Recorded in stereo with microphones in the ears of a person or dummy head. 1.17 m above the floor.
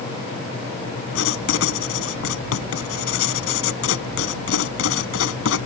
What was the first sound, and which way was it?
Writing, 85° left.